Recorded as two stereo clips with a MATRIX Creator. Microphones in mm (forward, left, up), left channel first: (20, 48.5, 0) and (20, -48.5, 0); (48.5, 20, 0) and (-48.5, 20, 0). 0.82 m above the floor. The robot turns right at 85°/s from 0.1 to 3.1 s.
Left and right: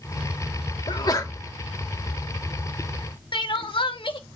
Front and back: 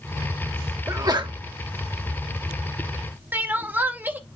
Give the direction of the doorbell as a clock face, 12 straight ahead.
No doorbell in this recording.